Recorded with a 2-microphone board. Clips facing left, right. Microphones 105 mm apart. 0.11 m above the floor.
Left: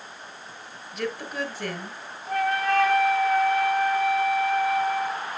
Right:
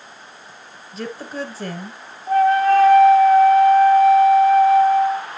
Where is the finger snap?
No finger snap in this recording.